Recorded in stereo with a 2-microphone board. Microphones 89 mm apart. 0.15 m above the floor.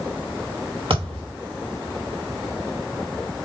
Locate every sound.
0.9 s a thud: 70° right (ahead or behind), 4 m